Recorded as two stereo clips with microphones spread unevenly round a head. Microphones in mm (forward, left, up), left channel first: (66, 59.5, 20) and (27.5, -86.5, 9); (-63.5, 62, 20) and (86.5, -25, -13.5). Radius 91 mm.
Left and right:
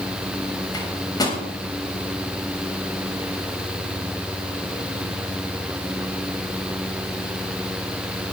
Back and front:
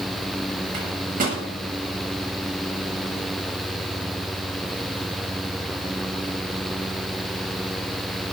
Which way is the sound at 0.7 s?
15° left.